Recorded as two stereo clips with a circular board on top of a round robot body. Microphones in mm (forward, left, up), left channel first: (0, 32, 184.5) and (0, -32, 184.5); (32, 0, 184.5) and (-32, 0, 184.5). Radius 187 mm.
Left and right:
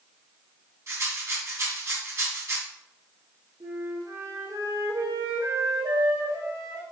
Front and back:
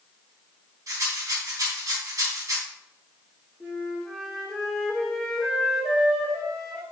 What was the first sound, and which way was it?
A rattle, 140° right.